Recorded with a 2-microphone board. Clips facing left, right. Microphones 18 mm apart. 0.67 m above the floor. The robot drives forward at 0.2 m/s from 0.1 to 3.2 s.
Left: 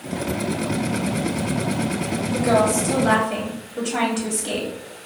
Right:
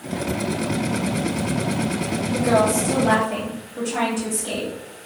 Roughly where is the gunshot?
I don't hear a gunshot.